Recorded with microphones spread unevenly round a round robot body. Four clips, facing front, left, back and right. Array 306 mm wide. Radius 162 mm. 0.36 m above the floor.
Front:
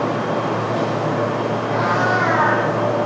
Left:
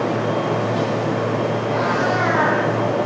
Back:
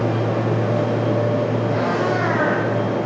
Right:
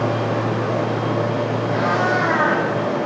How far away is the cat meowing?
About 2.5 m.